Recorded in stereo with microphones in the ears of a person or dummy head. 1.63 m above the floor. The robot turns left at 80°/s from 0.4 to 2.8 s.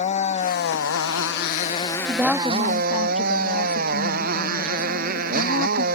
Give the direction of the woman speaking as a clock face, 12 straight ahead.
5 o'clock.